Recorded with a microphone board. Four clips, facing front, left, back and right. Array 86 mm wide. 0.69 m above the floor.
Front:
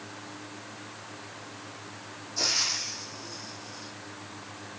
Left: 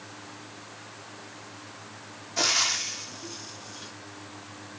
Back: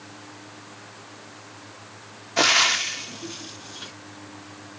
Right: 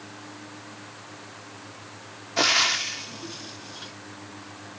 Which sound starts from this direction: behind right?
Frying, at 2.4 s.